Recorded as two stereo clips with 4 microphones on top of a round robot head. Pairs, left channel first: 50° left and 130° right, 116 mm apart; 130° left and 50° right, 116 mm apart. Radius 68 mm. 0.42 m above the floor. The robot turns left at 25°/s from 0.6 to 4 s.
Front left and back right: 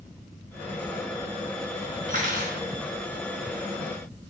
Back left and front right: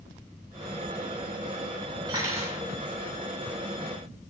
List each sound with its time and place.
2.1 s cutlery clinking: 110° right, 2 m; by 2.6 s 125° right, 2 m